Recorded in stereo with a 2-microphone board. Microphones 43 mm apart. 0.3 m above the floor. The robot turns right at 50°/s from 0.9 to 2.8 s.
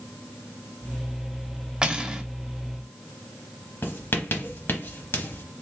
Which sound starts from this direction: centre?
Cutlery clinking, at 1.8 s.